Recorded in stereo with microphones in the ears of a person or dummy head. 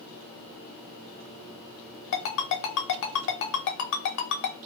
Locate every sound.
2.1 s a ringtone: 60° left (ahead or behind), 0.8 m